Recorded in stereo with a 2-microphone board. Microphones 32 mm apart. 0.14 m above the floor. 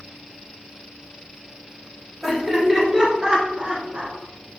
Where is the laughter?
10° right (ahead or behind), 1.8 m; by 4.2 s 40° right (ahead or behind), 1.5 m.